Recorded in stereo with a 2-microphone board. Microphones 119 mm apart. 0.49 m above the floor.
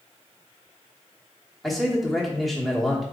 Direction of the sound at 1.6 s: Centre (ahead or behind).